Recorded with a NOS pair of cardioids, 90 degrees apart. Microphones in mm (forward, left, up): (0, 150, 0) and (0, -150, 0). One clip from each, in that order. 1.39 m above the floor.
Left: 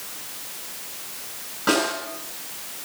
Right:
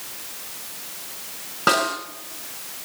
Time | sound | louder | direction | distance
1.7 | a snare drum | right 2 dB | 65° right | 5.5 m